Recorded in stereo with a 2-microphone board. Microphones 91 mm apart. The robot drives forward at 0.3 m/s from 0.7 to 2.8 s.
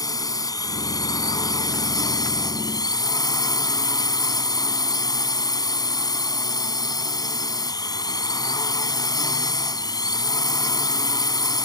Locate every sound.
0.0 s a drone: 40° left (ahead or behind); by 11.7 s 45° left (ahead or behind)